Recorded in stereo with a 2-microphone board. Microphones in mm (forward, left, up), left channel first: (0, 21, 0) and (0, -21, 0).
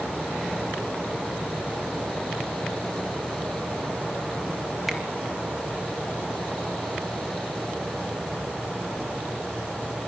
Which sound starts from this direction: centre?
A finger snap, at 4.9 s.